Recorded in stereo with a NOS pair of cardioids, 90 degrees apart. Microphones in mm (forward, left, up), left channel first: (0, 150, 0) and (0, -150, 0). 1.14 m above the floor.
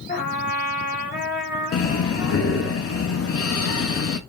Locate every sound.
0.1 s a trumpet: 35° left, 3 m
1.7 s breathing: 50° left, 1.7 m